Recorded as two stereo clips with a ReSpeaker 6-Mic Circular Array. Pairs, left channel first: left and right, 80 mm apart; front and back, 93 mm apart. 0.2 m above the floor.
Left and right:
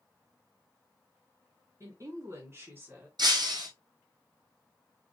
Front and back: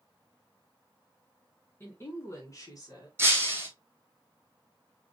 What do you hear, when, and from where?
1.8 s a woman speaking: 60° right, 2 m; by 3.1 s 25° right, 2 m
3.2 s breaking glass: 115° right, 1.9 m